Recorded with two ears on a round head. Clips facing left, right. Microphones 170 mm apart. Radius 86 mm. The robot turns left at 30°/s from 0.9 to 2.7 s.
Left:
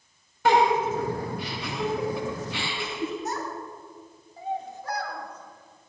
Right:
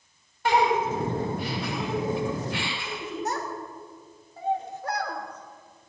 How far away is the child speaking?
About 2.5 m.